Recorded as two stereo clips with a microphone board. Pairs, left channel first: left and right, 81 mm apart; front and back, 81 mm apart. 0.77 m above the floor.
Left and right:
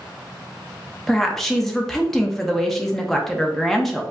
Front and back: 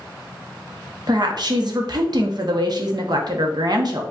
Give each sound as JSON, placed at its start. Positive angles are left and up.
{"t": 1.1, "sound": "a woman speaking", "azimuth_deg": 175, "distance_m": 0.9}